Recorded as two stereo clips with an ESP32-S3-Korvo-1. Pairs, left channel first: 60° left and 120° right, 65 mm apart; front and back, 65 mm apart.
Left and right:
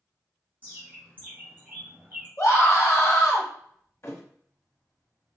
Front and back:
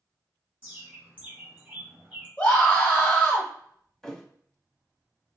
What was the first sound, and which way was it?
A bird, 135° right.